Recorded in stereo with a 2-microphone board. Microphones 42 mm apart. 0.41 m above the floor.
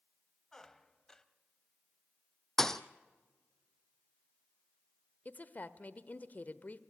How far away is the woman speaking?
About 1.1 m.